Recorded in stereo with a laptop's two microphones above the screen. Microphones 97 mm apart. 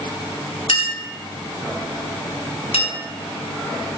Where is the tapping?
I don't hear tapping.